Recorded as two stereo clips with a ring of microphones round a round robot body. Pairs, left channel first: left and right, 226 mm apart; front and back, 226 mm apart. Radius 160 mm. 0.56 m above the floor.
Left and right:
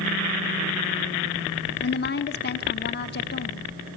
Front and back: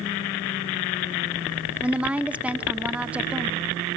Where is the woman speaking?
100° left, 1.1 m.